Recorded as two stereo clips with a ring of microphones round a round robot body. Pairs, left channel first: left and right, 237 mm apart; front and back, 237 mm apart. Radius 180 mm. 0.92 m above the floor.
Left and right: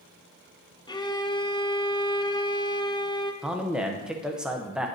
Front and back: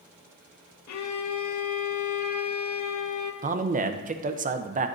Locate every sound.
0.9 s a violin: 15° left, 0.7 m
3.4 s a man speaking: 175° right, 0.6 m